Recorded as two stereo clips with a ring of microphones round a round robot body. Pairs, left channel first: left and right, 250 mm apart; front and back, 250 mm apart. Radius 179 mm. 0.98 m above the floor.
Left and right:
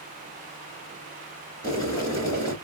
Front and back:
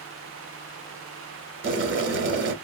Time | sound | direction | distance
1.6 | boiling | 165° left | 1.1 m